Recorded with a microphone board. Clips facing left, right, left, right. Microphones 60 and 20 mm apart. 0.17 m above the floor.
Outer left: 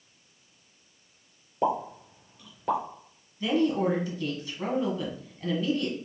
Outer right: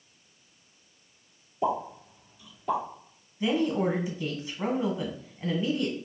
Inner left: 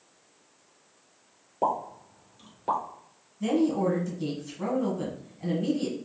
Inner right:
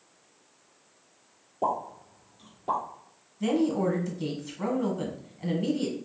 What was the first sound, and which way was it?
A pop, 50° left (ahead or behind).